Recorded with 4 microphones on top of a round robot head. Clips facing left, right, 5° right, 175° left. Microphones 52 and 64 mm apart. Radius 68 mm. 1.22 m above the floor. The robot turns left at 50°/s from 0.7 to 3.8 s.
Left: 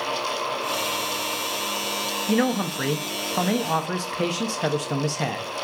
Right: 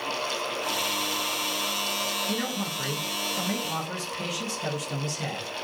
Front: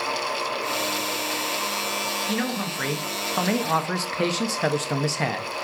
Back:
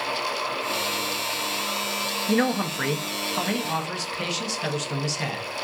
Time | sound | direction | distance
2.3 | a man speaking | 125° left | 1.2 m